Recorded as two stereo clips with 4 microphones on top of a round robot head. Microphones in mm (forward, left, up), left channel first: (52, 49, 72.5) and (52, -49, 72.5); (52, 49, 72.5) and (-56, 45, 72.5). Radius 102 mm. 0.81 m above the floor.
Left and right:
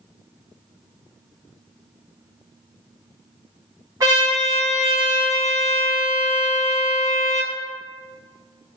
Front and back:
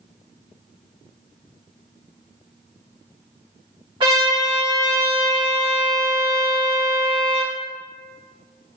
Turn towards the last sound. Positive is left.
turn(degrees=-145)